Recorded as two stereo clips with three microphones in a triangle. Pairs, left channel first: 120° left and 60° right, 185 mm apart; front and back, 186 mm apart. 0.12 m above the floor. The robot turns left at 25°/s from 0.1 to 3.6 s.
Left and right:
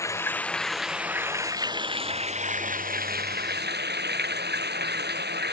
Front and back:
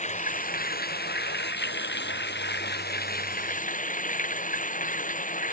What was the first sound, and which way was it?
Running water, 45° left.